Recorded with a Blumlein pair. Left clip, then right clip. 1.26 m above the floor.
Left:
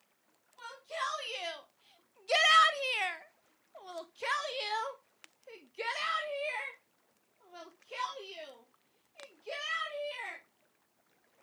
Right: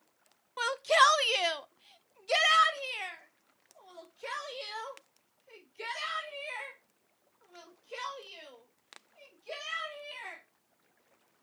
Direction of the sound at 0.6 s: 45° right.